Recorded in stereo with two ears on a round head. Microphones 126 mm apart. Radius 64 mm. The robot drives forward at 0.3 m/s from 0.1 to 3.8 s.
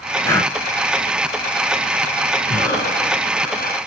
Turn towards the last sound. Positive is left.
turn(degrees=20)  # may be behind; listen again after turning